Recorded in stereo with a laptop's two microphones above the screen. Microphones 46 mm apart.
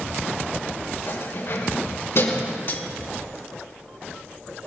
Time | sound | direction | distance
1.1 | keys jangling | 60° left (ahead or behind) | 6.5 m
2.7 | cutlery clinking | 45° left (ahead or behind) | 1.1 m